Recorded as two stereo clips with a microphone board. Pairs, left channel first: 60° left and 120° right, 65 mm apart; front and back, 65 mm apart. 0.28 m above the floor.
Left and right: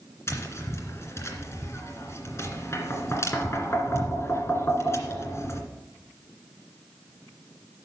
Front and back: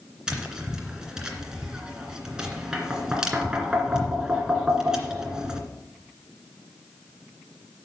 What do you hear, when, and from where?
0.3 s tapping: 100° left, 2 m